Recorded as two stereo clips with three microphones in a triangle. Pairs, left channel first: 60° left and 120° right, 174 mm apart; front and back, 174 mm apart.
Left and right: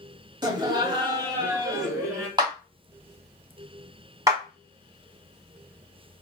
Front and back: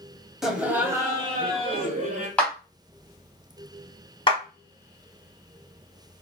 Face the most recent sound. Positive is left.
turn(degrees=-55)